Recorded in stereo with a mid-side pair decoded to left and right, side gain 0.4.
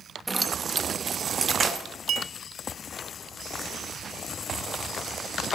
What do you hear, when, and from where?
0.3 s keys jangling: 20° right, 0.9 m; by 1.9 s 40° right, 3 m
2.1 s a clink: 65° right, 0.6 m